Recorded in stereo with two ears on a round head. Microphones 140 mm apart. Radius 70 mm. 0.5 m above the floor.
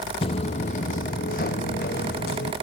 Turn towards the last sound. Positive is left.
turn(degrees=70)  # may be behind; listen again after turning